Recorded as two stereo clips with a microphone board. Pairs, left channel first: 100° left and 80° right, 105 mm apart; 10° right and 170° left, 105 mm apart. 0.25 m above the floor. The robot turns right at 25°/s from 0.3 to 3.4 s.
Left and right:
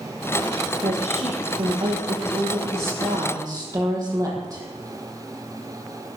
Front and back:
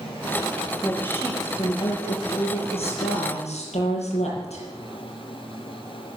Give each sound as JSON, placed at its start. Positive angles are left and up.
{"t": 0.8, "sound": "a woman speaking", "azimuth_deg": -85, "distance_m": 6.5}